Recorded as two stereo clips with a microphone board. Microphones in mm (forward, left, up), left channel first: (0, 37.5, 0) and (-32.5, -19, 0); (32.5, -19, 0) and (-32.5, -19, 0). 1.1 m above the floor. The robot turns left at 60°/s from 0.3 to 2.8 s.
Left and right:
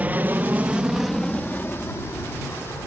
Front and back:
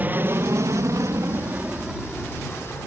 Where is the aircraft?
155° right; by 2.9 s 45° left.